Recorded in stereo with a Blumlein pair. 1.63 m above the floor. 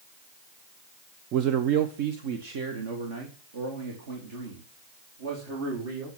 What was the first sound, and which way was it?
A man speaking, 35° right.